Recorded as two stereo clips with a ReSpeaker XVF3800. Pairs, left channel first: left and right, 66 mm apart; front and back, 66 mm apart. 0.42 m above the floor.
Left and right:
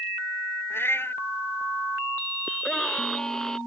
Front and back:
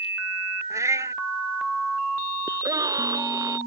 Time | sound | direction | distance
0.7 | a cat meowing | 145° left | ?
2.5 | a scream | 170° left | ?